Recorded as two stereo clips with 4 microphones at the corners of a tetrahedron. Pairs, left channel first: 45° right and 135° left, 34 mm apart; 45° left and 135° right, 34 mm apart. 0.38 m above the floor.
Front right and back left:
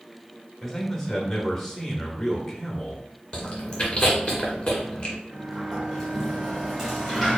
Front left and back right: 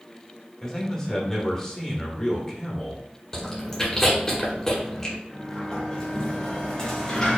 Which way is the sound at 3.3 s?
20° right.